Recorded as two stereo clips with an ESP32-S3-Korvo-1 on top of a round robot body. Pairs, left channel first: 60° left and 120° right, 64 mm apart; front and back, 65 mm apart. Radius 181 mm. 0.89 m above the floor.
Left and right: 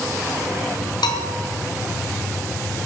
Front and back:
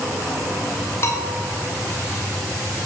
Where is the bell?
55° left, 1.7 m.